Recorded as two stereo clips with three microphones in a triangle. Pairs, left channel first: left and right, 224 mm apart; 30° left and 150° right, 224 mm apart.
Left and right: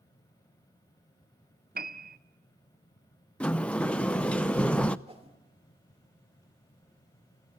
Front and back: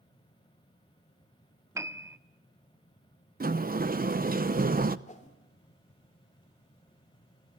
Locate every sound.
1.8 s a piano: 75° right, 0.8 m
3.4 s a sliding door: 175° left, 0.6 m
5.1 s a whoosh: 30° right, 2 m